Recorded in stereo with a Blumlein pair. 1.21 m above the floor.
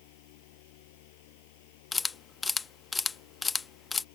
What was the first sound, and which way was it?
A fan, 50° left.